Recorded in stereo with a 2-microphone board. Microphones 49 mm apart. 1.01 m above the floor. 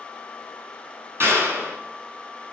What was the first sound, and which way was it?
A clap, 50° right (ahead or behind).